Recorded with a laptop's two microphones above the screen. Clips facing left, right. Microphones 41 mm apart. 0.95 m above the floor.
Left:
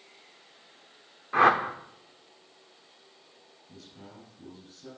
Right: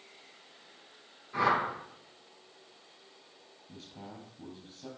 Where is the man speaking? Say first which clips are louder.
Right 2 dB; 30° right (ahead or behind), 5 m.